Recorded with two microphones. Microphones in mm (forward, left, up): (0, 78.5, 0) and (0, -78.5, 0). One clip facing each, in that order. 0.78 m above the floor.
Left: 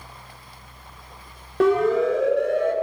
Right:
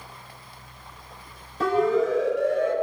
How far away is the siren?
About 3 m.